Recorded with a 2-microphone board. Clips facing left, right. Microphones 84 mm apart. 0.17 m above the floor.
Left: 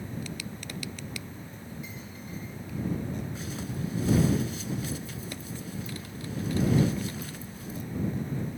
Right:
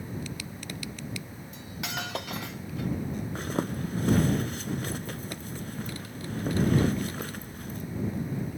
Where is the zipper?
55° right (ahead or behind).